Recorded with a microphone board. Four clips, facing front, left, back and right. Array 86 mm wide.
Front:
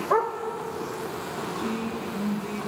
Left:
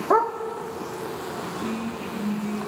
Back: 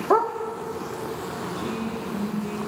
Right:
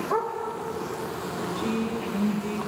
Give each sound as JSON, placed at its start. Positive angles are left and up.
{"t": 0.1, "sound": "a dog barking", "azimuth_deg": 140, "distance_m": 1.6}
{"t": 1.6, "sound": "a woman speaking", "azimuth_deg": -115, "distance_m": 3.5}